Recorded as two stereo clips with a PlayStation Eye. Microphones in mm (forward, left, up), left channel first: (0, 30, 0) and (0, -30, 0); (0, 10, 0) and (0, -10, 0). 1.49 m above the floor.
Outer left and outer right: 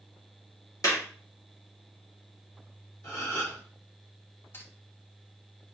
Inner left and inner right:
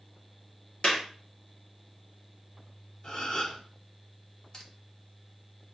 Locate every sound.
0.8 s a clap: 60° left (ahead or behind), 2.5 m
3.0 s a gasp: 55° left (ahead or behind), 3 m
4.5 s cutlery clinking: 35° left (ahead or behind), 1.3 m